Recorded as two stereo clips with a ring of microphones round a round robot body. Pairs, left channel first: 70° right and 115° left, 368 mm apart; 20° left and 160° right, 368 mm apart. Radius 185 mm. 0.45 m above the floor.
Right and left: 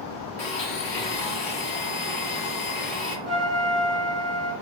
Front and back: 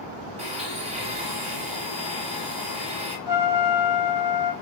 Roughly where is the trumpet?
Ahead left.